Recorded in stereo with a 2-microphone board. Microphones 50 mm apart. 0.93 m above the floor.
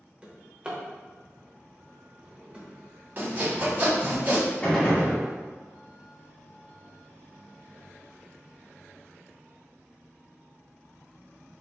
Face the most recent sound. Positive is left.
turn(degrees=25)  # may be behind; listen again after turning